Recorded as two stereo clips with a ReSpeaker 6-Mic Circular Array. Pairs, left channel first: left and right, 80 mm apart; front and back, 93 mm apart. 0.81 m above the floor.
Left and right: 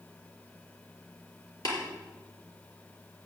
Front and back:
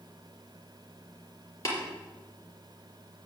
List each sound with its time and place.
1.6 s tapping: 55° left, 4 m